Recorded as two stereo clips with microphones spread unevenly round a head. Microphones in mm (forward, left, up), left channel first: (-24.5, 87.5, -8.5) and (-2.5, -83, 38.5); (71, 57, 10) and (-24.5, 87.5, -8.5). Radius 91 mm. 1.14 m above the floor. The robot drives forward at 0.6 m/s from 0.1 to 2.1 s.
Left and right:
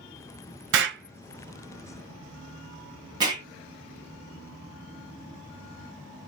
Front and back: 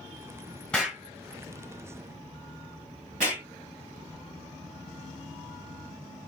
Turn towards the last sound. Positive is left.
turn(degrees=-150)